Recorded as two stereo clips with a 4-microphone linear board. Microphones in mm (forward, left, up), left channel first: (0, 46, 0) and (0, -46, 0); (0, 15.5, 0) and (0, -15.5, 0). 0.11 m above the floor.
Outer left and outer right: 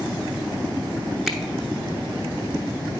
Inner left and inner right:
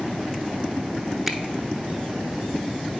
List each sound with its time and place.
1.3 s a finger snap: 5° right (ahead or behind), 0.9 m